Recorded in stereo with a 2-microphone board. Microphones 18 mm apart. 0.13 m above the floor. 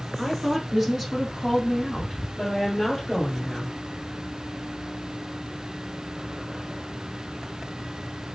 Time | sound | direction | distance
0.2 | a woman speaking | 25° right (ahead or behind) | 1.5 m